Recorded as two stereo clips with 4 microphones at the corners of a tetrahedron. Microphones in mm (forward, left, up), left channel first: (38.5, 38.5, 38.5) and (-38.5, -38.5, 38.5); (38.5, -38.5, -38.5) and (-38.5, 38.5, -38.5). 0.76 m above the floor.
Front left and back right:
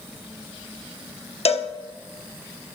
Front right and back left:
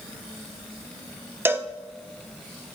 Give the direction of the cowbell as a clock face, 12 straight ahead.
10 o'clock.